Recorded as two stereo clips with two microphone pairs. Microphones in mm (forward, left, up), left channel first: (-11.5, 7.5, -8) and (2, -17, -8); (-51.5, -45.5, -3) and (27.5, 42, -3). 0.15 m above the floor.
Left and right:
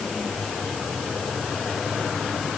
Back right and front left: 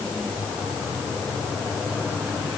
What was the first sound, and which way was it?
Only background noise.